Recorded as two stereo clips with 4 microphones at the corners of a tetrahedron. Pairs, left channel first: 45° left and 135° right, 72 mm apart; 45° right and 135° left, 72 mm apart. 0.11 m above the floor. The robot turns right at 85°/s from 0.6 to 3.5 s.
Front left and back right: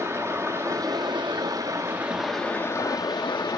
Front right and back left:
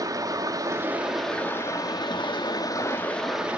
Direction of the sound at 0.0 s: 175° left.